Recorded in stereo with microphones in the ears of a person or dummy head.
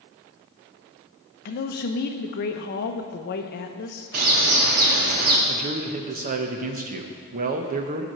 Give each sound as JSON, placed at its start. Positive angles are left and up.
{"t": 1.4, "sound": "a man speaking", "side_deg": 50, "distance_m": 0.7}
{"t": 4.1, "sound": "a bird", "side_deg": -45, "distance_m": 0.9}
{"t": 5.5, "sound": "a man speaking", "side_deg": -45, "distance_m": 0.8}